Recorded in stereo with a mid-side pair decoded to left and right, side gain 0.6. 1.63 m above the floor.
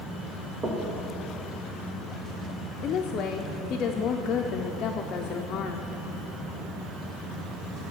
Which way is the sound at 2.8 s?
50° left.